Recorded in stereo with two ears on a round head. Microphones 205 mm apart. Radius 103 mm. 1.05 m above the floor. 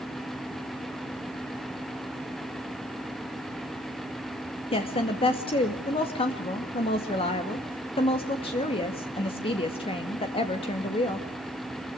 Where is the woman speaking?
25° left (ahead or behind), 2 m.